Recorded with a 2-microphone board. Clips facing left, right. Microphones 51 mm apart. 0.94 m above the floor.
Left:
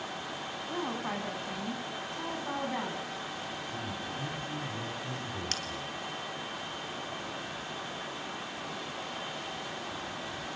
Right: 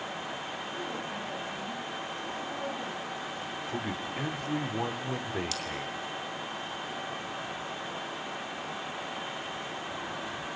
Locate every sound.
0.7 s a woman speaking: 70° left (ahead or behind), 9 m
3.7 s a man speaking: 75° right (ahead or behind), 3 m
5.5 s a bell: 45° left (ahead or behind), 4 m